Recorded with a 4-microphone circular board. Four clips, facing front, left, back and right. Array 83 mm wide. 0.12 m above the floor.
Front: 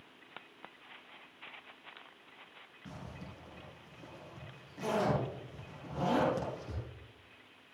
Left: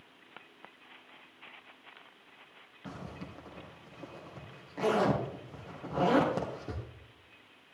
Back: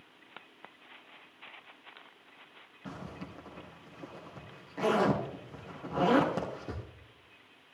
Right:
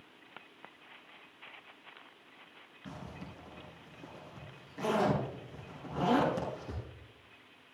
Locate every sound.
2.9 s a zipper: 135° left, 3.5 m